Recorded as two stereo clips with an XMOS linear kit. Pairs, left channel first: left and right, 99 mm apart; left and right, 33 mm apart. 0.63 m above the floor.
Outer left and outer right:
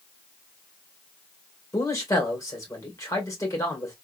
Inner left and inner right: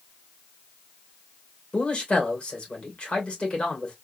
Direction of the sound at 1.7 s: 30° left (ahead or behind).